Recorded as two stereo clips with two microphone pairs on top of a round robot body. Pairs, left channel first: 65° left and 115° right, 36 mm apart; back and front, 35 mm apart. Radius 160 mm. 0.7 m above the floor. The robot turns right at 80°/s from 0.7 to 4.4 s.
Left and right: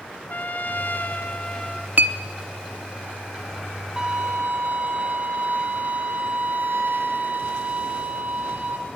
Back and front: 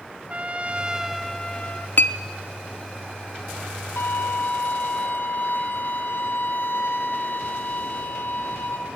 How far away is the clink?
About 0.8 m.